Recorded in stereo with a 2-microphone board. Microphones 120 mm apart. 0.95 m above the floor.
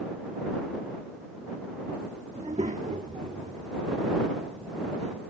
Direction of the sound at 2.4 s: 70° right (ahead or behind).